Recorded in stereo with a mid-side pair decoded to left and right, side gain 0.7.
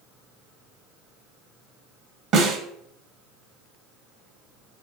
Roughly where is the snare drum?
Ahead right.